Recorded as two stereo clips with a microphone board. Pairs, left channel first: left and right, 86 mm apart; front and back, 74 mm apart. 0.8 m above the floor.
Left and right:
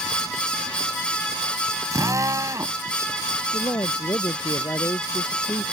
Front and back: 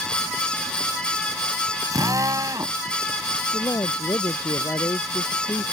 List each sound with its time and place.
1.9 s a drill: 140° right
3.5 s a man speaking: 40° left